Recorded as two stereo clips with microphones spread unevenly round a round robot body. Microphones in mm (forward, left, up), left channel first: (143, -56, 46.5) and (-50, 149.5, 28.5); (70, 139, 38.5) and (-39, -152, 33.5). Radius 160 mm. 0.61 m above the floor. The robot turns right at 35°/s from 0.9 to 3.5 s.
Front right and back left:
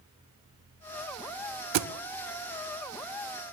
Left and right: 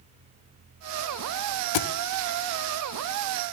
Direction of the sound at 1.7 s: 95° left.